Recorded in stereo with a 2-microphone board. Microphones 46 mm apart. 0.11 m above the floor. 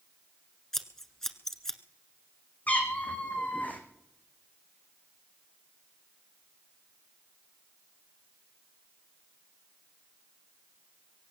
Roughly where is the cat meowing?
Left.